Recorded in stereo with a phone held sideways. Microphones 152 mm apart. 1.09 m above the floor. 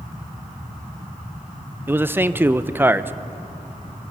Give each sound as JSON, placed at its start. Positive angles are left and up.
{"t": 1.9, "sound": "a man speaking", "side_deg": -15, "distance_m": 0.5}